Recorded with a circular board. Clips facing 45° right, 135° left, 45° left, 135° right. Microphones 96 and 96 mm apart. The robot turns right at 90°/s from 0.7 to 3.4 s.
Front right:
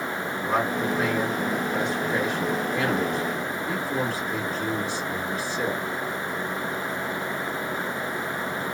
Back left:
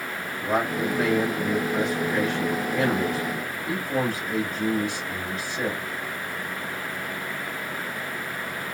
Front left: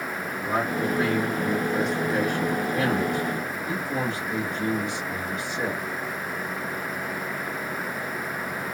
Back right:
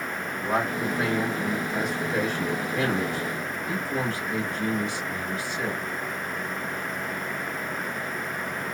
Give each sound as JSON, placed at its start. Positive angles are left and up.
{"t": 0.4, "sound": "a man speaking", "azimuth_deg": -160, "distance_m": 1.6}